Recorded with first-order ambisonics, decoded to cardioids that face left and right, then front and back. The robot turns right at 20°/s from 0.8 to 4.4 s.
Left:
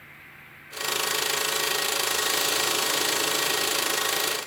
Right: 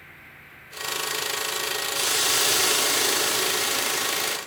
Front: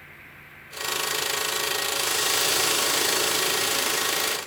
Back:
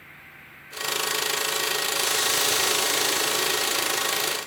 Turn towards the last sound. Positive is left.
turn(degrees=-40)